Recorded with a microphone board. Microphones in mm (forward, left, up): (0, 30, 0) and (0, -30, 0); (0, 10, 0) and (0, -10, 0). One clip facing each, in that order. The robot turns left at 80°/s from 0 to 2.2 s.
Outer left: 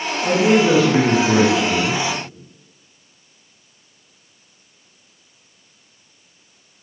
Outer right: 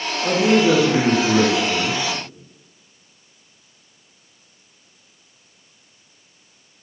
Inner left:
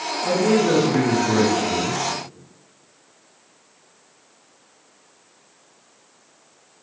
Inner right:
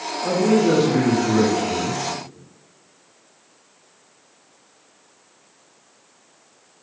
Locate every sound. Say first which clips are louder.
0.2 s a man speaking: outer left 1 dB, inner right 1 dB; 25° right (ahead or behind), 1.0 m; by 2.0 s 25° left (ahead or behind), 1.0 m